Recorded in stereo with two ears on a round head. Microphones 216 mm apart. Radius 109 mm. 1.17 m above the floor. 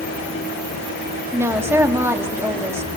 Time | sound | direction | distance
1.3 | a woman speaking | 10° right (ahead or behind) | 1.7 m